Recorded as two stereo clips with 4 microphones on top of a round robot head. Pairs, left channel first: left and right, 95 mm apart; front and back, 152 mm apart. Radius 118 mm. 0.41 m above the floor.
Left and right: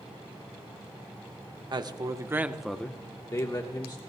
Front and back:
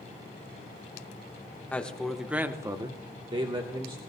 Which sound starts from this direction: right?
A man speaking, at 1.7 s.